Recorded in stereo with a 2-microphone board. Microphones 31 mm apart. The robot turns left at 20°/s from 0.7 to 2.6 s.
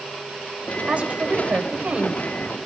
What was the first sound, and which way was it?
A woman speaking, 45° right (ahead or behind).